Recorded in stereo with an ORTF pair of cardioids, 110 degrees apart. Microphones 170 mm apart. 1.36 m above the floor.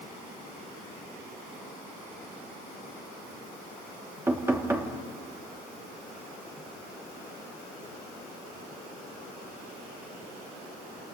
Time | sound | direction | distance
4.3 | knocking | 15° right | 2.5 m